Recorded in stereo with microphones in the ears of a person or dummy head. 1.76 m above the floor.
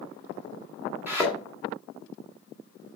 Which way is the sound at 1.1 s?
5° right (ahead or behind).